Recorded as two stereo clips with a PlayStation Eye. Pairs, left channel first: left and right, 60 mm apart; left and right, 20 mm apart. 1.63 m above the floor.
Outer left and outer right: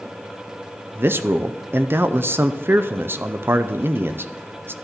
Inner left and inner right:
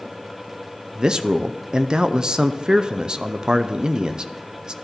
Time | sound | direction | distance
0.9 | a man speaking | 40° right (ahead or behind) | 0.5 m